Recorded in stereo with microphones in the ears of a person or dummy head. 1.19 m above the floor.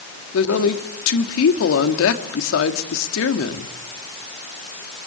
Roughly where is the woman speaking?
Left.